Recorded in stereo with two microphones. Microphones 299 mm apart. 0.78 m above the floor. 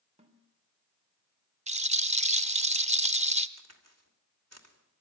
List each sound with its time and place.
0.2 s a snare drum: 20° right (ahead or behind), 3.5 m
1.7 s a rattle: 20° right (ahead or behind), 0.8 m
3.6 s a crack: 55° right (ahead or behind), 3 m